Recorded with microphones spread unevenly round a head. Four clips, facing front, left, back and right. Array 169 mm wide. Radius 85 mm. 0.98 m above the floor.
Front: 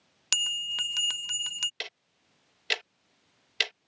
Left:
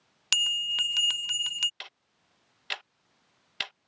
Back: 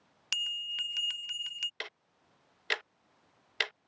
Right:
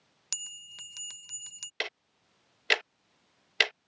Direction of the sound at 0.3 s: 40° left.